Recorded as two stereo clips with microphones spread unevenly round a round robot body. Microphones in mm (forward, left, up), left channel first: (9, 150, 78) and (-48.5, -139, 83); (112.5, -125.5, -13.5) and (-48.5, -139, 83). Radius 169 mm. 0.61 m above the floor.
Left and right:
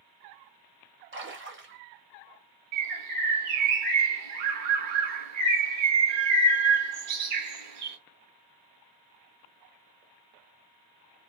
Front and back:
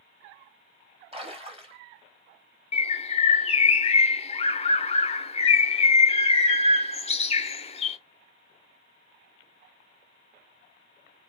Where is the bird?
70° right, 0.6 m.